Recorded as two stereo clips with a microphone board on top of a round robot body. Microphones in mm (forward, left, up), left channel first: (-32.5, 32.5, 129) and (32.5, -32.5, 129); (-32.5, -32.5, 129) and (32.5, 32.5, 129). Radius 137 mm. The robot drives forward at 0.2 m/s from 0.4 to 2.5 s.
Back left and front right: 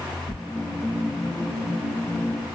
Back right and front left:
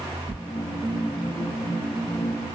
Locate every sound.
0.3 s tearing paper: 145° left, 1.6 m